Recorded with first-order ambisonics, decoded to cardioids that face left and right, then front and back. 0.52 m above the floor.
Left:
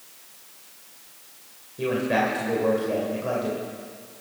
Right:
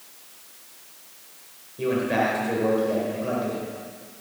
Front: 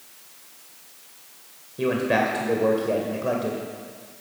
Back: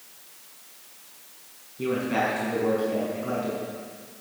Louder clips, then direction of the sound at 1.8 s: Even, front 4 dB; 10° left.